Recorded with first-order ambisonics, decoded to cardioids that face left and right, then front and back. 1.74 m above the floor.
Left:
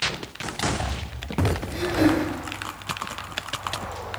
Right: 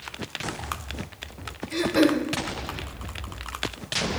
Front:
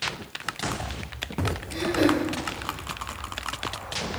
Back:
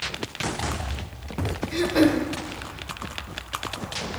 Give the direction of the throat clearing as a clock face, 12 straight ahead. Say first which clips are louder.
Right 1 dB, back 3 dB; 5 o'clock.